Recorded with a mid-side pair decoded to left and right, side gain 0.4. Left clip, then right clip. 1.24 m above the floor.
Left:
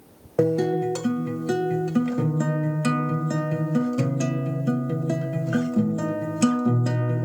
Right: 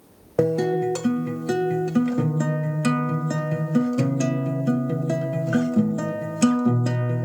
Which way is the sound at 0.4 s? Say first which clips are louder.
Right 1 dB; 20° right.